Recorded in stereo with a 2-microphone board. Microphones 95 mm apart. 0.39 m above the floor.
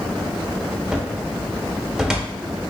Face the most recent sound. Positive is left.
turn(degrees=-5)  # may be behind; listen again after turning